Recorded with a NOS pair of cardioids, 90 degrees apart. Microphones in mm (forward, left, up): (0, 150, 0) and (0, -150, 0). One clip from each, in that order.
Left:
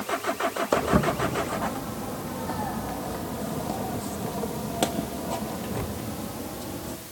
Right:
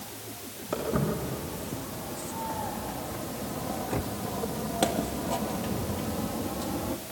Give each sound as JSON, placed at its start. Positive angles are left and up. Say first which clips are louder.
{"t": 0.7, "sound": "footsteps", "louder": "left 4 dB", "azimuth_deg": 65, "distance_m": 3.5}